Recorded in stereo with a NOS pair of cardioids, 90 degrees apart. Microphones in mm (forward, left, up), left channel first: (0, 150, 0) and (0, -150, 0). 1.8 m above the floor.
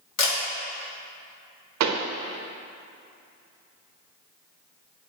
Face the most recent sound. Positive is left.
turn(degrees=-65)